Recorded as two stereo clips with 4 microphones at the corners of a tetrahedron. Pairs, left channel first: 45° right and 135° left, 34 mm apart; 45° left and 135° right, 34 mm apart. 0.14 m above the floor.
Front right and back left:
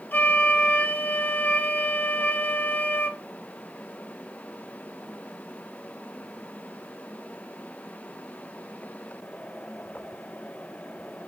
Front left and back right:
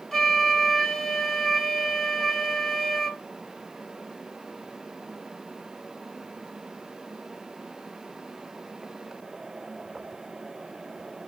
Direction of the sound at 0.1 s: 30° right.